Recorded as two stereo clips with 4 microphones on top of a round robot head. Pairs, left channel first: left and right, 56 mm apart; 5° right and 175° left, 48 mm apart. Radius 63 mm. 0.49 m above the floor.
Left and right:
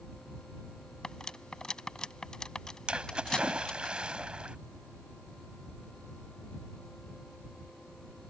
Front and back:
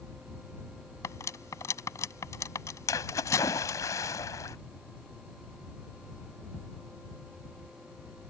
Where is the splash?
15° right.